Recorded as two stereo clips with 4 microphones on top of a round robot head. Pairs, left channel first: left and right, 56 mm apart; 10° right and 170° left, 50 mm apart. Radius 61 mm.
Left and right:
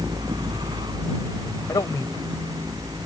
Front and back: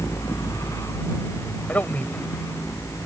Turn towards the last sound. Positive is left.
turn(degrees=50)